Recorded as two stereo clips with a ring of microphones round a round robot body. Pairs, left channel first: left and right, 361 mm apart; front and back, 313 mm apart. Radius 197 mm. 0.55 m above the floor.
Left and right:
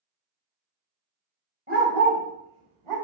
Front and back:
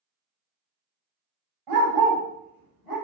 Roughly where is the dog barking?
Behind.